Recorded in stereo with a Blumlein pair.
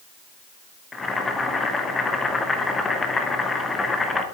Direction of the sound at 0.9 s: 15° left.